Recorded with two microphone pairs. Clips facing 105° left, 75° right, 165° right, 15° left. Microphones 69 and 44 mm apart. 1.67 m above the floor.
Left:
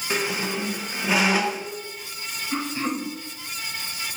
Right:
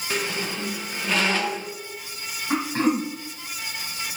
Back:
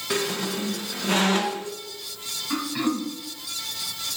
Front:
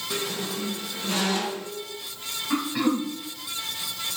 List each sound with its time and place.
0.1 s a squeak: straight behind, 0.9 m
2.5 s throat clearing: 75° right, 1.6 m